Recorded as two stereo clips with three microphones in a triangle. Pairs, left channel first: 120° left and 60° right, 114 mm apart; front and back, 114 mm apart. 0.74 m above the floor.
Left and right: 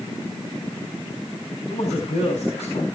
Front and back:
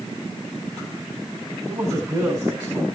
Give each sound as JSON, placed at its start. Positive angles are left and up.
{"t": 1.7, "sound": "a man speaking", "azimuth_deg": 110, "distance_m": 4.5}